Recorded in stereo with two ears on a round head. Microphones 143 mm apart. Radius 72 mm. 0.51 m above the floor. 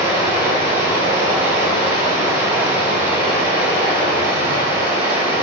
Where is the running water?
15° right (ahead or behind), 1.5 m.